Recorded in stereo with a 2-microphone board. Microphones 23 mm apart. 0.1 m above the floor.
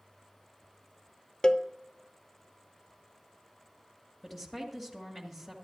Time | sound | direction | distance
1.4 | a cowbell | 30° left (ahead or behind) | 0.6 m
4.2 | a woman speaking | 10° left (ahead or behind) | 2.0 m